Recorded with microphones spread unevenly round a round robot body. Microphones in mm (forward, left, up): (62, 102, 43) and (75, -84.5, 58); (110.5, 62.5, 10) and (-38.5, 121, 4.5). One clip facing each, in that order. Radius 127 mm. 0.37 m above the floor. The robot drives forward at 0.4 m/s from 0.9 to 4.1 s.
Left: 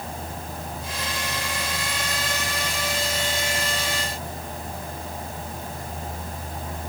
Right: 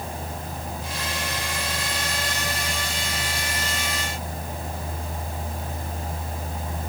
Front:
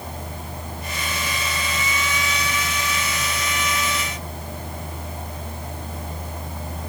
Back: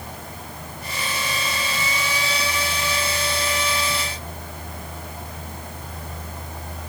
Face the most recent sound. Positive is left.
No sound to turn to.